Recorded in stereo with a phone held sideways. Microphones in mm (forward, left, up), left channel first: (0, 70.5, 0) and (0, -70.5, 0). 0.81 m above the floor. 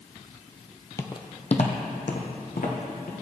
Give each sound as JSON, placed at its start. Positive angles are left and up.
{"t": 1.0, "sound": "footsteps", "side_deg": 20, "distance_m": 0.9}